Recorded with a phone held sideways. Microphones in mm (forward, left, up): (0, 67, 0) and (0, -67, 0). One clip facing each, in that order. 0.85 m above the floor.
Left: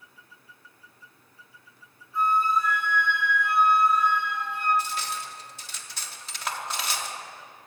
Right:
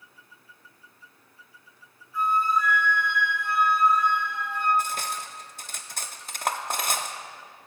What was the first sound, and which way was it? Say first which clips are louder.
A flute: left 1 dB; 25° left (ahead or behind).